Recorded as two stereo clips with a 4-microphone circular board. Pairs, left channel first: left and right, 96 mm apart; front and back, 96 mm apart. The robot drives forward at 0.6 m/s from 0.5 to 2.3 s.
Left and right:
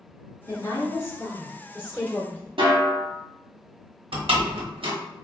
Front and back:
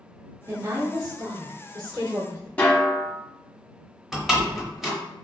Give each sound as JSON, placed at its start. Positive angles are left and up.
{"t": 0.5, "sound": "a woman speaking", "azimuth_deg": 130, "distance_m": 1.5}
{"t": 2.6, "sound": "a snare drum", "azimuth_deg": -75, "distance_m": 0.8}
{"t": 4.1, "sound": "a door slam", "azimuth_deg": -95, "distance_m": 0.8}